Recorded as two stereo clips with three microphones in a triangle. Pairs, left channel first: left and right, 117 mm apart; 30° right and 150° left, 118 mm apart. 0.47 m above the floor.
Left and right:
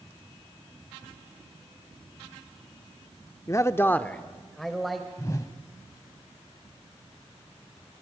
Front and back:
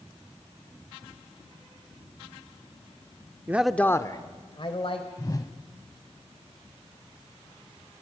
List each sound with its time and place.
3.5 s a man speaking: 105° left, 0.7 m; by 5.1 s straight ahead, 2 m
5.2 s a whoosh: 25° left, 0.9 m